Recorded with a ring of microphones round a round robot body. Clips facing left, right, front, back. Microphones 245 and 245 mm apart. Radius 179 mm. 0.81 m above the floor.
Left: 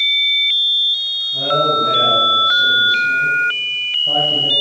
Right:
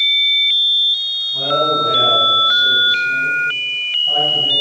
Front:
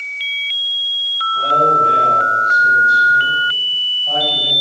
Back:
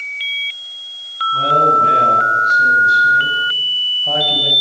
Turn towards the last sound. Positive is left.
turn(degrees=145)